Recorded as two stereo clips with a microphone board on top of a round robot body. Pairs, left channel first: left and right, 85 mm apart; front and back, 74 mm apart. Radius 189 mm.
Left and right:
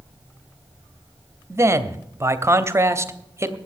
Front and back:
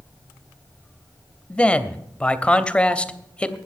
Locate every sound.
1.5 s a man speaking: 65° right, 1.3 m